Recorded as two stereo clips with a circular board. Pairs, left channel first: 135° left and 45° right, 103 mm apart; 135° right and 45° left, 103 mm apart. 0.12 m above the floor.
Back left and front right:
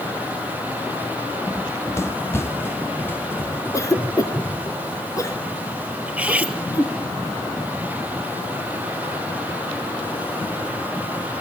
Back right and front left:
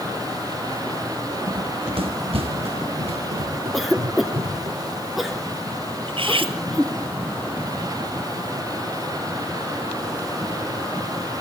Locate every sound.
1.5 s running footsteps: 75° left, 1.0 m; by 4.7 s 65° left, 4 m
3.7 s a cough: 135° left, 1.7 m
6.1 s cutlery clinking: 30° left, 1.6 m